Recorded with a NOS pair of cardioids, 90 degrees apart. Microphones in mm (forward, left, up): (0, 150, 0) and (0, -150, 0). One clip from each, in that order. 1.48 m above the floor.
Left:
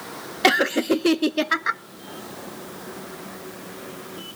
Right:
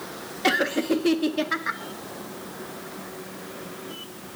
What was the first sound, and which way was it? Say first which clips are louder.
Laughter: left 4 dB; 50° left.